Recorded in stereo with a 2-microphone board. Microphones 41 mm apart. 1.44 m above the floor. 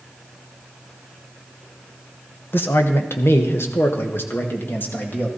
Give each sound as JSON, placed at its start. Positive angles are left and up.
{"t": 2.5, "sound": "a man speaking", "side_deg": 60, "distance_m": 1.6}